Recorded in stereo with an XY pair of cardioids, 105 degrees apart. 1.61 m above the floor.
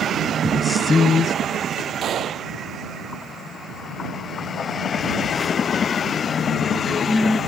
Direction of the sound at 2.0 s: 55° right.